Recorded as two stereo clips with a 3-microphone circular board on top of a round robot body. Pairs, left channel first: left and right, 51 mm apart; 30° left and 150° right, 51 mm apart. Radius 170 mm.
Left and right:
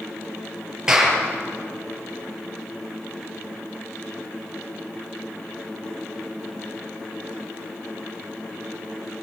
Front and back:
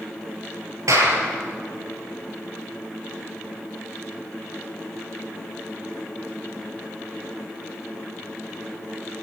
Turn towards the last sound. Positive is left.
turn(degrees=-170)